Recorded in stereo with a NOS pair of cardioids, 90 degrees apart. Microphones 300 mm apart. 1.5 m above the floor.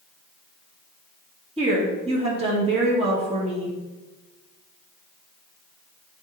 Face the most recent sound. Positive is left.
turn(degrees=-20)